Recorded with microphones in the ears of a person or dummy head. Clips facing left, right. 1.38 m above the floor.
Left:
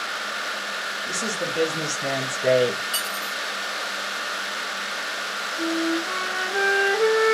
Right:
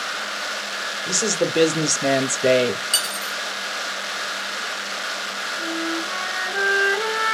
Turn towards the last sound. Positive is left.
turn(degrees=25)  # may be behind; listen again after turning